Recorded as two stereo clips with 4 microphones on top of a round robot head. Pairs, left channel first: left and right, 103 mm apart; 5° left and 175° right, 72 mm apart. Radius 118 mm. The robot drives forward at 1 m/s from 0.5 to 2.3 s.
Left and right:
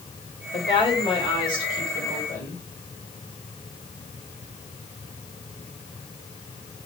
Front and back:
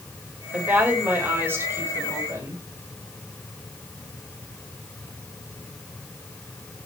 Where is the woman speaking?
110° left, 3.5 m; by 2.6 s 135° left, 4.5 m.